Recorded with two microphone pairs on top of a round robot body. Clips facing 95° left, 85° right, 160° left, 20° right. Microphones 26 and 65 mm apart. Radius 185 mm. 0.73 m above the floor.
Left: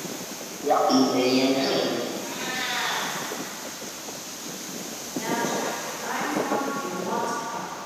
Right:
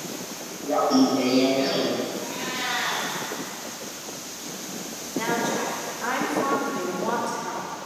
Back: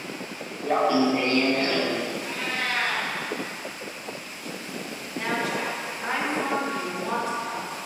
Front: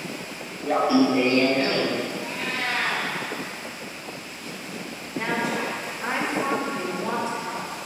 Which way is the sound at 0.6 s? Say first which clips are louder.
Even, front 2 dB; 75° left.